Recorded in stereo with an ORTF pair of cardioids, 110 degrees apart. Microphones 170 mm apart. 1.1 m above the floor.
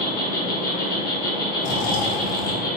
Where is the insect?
60° left, 1.0 m.